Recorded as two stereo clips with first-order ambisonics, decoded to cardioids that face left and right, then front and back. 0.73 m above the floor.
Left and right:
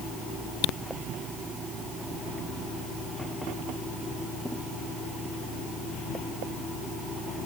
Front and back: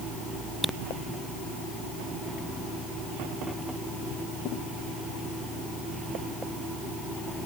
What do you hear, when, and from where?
Only background noise.